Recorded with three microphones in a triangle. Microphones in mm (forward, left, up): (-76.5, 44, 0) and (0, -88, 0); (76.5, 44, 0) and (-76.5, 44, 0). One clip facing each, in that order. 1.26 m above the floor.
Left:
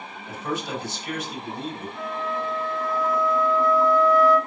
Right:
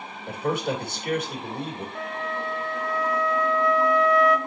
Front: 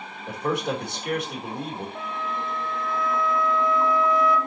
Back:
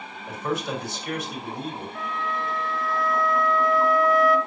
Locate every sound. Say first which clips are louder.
0.3 s a man speaking: right 4 dB, front 2 dB; 30° right, 3.5 m
1.9 s a flute: left 3 dB, back 1 dB; 70° right, 1.3 m